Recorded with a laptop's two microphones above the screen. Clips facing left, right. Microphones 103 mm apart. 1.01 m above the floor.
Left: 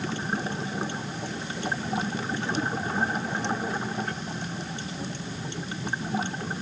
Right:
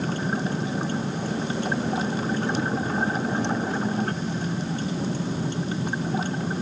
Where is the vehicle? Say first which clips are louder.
Right 4 dB; 45° right (ahead or behind).